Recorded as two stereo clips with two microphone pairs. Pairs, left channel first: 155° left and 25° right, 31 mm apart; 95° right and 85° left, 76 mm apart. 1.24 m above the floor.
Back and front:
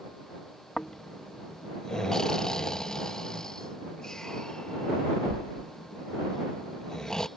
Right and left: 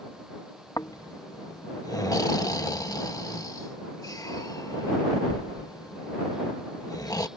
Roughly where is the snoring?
Behind right.